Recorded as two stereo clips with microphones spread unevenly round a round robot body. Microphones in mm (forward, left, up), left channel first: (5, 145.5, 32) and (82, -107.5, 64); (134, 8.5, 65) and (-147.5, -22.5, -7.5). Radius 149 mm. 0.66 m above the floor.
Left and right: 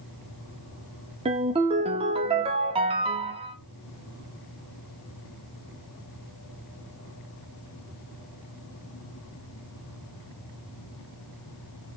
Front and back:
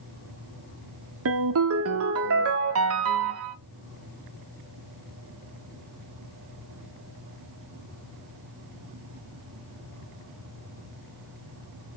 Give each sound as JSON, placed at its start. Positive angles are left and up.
{"t": 1.2, "sound": "a ringtone", "azimuth_deg": -145, "distance_m": 0.9}